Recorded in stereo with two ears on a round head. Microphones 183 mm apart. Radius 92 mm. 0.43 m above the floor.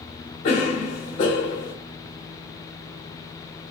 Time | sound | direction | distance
0.4 | a cough | 40° left (ahead or behind) | 1.1 m